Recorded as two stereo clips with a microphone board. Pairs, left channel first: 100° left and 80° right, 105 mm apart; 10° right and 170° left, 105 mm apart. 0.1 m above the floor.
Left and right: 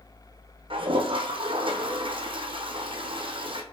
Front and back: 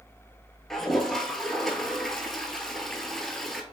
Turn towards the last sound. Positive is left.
turn(degrees=-95)